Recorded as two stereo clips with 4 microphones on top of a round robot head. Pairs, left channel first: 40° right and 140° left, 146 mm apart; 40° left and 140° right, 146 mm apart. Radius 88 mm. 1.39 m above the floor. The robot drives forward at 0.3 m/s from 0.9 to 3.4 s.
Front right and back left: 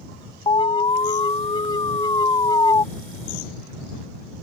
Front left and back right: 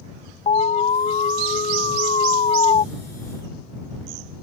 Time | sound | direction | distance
0.5 | an alarm | 10° left | ?